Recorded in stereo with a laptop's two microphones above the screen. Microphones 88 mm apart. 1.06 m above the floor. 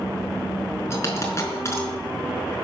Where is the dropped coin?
30° left (ahead or behind), 4.5 m.